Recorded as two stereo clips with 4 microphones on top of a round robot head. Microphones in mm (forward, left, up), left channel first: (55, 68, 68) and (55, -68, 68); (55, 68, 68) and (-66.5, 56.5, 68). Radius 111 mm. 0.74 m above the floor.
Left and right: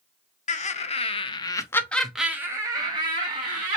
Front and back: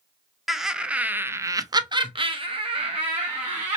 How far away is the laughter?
About 1.0 m.